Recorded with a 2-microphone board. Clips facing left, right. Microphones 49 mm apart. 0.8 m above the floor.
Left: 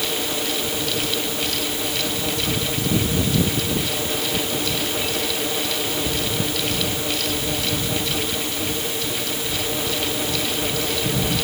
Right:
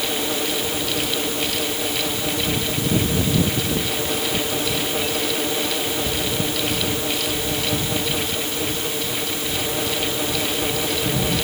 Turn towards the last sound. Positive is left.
No sound to turn to.